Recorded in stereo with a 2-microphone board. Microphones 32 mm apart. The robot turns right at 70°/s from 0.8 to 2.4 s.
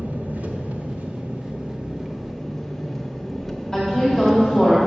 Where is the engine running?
110° right, 0.8 m; by 4.9 s 5° left, 0.8 m.